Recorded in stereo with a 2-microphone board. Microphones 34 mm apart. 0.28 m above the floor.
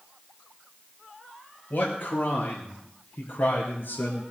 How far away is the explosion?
I don't hear an explosion.